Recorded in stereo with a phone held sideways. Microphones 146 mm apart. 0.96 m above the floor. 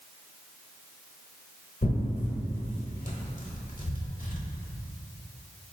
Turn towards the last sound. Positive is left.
turn(degrees=60)  # may be behind; listen again after turning